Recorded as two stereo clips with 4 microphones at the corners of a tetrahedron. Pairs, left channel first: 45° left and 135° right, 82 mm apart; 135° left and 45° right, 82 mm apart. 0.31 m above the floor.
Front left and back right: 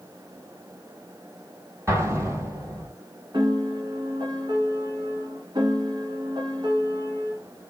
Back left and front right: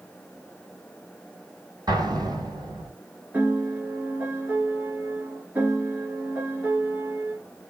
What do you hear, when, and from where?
1.9 s an explosion: 80° right, 1.7 m
3.3 s a piano: 115° right, 1.2 m